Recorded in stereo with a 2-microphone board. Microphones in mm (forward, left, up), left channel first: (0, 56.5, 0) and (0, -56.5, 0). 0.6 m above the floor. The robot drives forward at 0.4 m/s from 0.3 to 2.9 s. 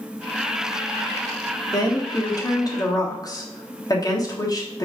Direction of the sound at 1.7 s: 35° left (ahead or behind).